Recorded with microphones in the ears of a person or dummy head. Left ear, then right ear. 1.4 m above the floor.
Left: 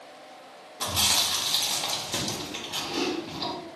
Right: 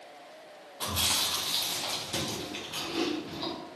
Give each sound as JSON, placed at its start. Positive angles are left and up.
{"t": 0.8, "sound": "chewing", "side_deg": 10, "distance_m": 0.8}